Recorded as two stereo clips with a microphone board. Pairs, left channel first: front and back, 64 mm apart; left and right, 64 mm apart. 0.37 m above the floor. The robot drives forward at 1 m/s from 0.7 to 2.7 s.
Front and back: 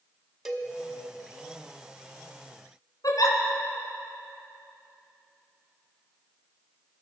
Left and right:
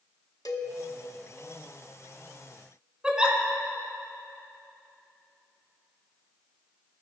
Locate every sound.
0.5 s a cowbell: 95° left, 0.9 m
3.0 s a giggle: 15° right, 1.3 m